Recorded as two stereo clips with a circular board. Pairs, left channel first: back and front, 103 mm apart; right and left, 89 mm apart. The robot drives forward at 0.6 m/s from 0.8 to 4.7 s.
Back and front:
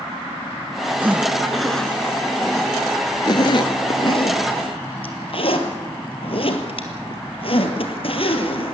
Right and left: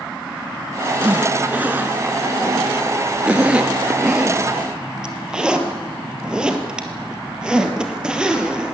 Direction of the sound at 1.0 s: 40° left.